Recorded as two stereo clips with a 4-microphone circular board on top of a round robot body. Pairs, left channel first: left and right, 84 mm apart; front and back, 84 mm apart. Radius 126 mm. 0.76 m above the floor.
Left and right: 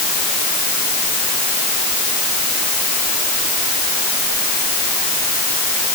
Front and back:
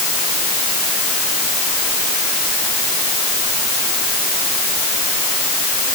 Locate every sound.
Only background noise.